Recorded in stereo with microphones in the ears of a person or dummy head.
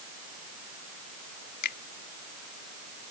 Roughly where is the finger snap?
Left.